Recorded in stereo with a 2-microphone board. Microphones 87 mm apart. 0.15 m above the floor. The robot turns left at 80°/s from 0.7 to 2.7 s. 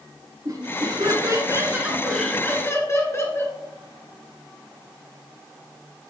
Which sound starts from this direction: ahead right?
Laughter, at 0.5 s.